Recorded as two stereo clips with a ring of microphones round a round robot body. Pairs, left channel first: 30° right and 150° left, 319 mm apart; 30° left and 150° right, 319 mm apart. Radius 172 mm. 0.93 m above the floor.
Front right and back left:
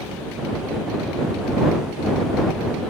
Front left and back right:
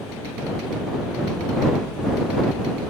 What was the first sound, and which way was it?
Only background noise.